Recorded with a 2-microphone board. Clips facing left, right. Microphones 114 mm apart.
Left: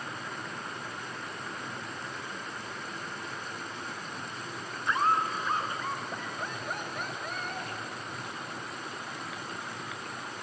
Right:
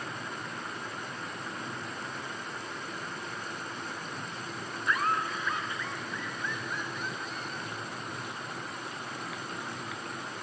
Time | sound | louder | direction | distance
4.9 | laughter | left 3 dB | 30° left (ahead or behind) | ?